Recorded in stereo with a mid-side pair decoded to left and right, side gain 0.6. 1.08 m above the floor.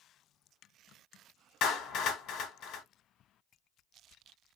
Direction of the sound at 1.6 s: 60° left.